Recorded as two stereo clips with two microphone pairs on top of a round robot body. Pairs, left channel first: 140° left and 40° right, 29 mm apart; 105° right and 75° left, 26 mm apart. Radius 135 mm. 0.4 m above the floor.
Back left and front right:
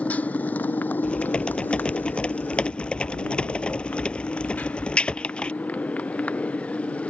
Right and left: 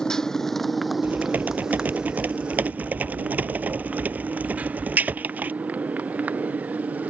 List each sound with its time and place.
0.0 s a motorcycle: 175° right; by 7.1 s 100° left
1.0 s typing on a keyboard: 90° left